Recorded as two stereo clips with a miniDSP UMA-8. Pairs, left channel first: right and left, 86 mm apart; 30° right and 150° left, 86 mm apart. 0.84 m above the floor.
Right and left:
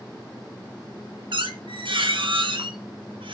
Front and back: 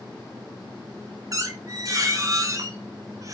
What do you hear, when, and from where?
1.3 s a squeak: 100° left, 0.5 m